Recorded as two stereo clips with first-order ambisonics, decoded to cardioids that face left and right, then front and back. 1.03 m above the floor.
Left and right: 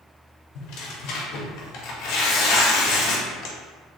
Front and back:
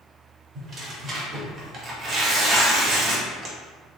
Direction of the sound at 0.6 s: 115° left.